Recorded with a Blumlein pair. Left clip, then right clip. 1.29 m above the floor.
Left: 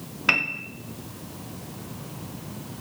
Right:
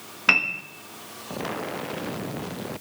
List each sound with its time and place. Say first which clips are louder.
0.3 s a piano: right 2 dB; 5° right, 1.1 m